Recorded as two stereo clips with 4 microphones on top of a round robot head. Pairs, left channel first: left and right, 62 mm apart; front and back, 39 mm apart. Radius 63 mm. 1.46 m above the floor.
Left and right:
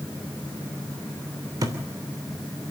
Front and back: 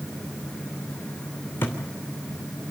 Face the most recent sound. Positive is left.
turn(degrees=-50)